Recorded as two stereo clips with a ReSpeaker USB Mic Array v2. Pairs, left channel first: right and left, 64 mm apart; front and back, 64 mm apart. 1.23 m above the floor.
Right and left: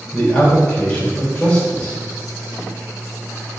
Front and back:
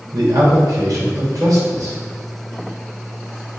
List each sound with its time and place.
0.1 s a man speaking: 160° right, 3 m